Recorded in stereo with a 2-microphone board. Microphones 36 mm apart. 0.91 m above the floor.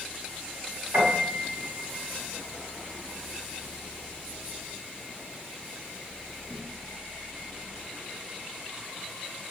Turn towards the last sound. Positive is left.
turn(degrees=-80)